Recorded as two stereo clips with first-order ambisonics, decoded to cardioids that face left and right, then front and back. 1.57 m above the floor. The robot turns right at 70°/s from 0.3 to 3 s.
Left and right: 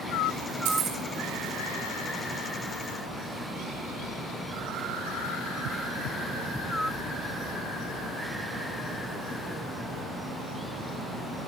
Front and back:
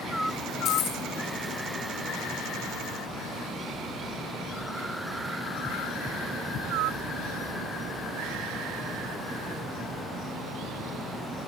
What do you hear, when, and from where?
0.7 s keys jangling: 60° right, 5 m; by 1.0 s 35° right, 5 m